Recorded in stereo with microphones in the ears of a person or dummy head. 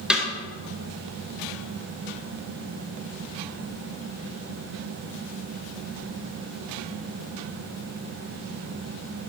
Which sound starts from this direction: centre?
A snare drum, at 0.1 s.